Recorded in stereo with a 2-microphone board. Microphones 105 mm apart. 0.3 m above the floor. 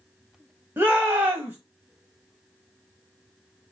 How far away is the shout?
About 1.4 m.